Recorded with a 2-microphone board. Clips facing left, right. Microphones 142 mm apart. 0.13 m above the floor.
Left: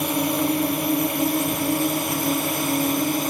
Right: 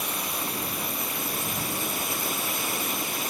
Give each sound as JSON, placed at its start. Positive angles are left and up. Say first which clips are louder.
{"t": 0.0, "sound": "a drone", "louder": "left 12 dB", "side_deg": 65}